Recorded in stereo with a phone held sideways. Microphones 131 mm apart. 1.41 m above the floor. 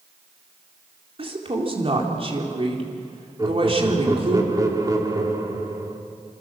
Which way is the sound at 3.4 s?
25° right (ahead or behind).